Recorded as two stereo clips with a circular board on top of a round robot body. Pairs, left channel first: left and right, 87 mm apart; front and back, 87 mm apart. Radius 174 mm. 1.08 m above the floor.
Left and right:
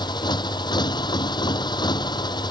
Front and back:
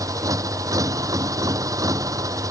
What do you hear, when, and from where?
0.0 s a motorcycle: 130° left